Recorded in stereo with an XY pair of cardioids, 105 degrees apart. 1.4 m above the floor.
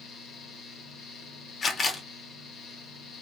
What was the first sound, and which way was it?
A fan, 70° left.